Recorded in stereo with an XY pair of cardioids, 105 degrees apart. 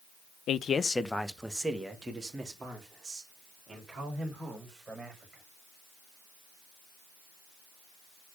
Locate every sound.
0.5 s a man speaking: 70° left, 0.8 m; by 5.4 s 30° right, 7.5 m